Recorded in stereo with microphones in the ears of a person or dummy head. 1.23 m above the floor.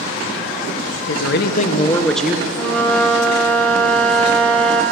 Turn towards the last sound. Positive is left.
turn(degrees=5)  # may be behind; listen again after turning